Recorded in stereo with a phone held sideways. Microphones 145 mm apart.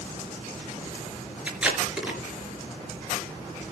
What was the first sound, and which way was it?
Tape being pulled, 10° right (ahead or behind).